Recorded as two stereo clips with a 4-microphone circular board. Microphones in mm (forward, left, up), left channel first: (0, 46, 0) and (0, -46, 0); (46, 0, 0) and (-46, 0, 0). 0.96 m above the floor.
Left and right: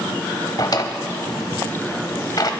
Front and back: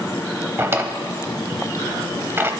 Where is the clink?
I don't hear a clink.